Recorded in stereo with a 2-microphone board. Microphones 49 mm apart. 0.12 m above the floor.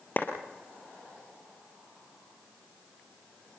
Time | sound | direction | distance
0.2 | a clap | 40° left (ahead or behind) | 3 m